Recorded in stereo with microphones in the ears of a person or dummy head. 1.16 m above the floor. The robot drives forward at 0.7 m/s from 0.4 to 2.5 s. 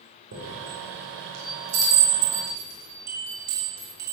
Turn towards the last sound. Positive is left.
turn(degrees=-75)  # may be behind; listen again after turning